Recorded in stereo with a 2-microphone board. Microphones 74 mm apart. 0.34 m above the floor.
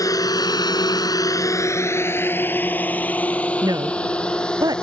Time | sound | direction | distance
0.0 | a drone | 55° left (ahead or behind) | ?
3.6 | a woman speaking | 70° right (ahead or behind) | ?